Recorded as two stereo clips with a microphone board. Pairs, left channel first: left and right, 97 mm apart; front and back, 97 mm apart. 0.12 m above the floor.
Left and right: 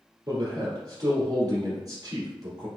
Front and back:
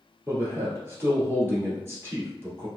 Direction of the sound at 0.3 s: 125° right.